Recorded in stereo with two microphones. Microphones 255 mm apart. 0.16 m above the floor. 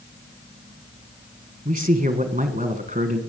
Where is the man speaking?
30° right (ahead or behind), 1.4 m.